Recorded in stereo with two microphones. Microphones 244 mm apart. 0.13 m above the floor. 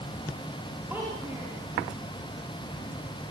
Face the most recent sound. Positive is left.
turn(degrees=-10)  # may be behind; listen again after turning